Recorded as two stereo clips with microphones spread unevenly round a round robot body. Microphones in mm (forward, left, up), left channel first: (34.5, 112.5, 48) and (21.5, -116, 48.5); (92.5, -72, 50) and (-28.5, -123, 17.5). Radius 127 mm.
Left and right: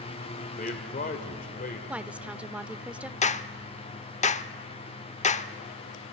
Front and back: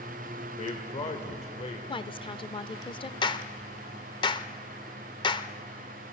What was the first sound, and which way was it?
A man speaking, 60° left.